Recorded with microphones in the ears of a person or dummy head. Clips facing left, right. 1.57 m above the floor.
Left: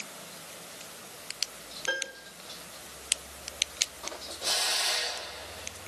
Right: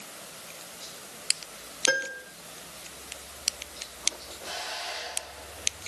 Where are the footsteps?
I don't hear footsteps.